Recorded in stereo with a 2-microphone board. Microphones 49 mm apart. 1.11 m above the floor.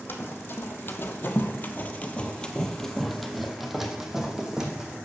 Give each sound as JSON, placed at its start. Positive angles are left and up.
{"t": 0.1, "sound": "running footsteps", "side_deg": 45, "distance_m": 2.0}